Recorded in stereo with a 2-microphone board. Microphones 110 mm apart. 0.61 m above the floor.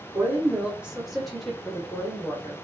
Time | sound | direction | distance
0.1 | a woman speaking | 20° right (ahead or behind) | 1.2 m